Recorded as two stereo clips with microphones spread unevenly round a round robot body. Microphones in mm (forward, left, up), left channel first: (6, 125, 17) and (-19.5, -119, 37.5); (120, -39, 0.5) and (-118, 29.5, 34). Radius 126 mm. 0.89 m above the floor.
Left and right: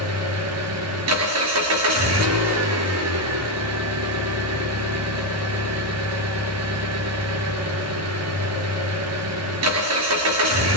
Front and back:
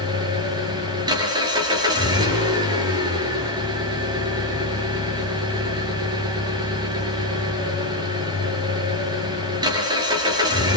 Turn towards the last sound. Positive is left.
turn(degrees=-125)